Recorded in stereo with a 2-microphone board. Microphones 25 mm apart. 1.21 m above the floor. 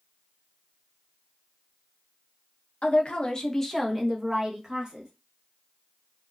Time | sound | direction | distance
2.8 | a woman speaking | 55° left (ahead or behind) | 0.8 m